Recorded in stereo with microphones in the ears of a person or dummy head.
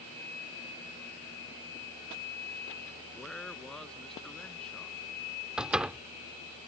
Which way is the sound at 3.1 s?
Centre (ahead or behind).